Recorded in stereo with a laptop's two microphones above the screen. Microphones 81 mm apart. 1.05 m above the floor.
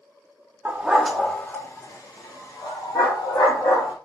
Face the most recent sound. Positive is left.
turn(degrees=70)  # may be behind; listen again after turning